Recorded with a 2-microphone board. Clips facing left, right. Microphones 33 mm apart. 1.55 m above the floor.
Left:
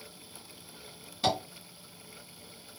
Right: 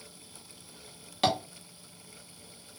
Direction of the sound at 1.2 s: 75° right (ahead or behind).